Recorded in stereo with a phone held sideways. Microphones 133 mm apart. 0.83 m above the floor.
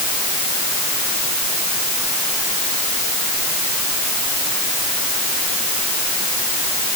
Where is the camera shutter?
No camera shutter in this recording.